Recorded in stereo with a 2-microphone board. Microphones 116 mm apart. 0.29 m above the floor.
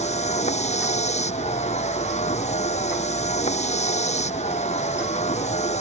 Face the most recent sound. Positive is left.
turn(degrees=75)  # may be behind; listen again after turning